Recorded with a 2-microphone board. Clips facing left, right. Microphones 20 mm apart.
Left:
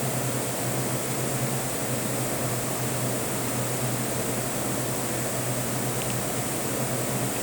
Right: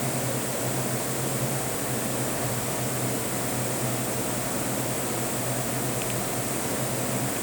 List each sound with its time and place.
Only background noise.